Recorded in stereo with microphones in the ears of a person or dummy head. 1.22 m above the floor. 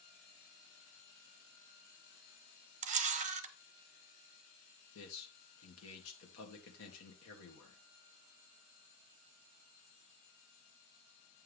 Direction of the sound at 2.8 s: 35° right (ahead or behind).